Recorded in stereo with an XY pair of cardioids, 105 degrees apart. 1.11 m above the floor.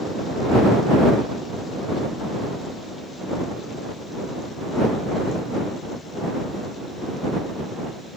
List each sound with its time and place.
Only background noise.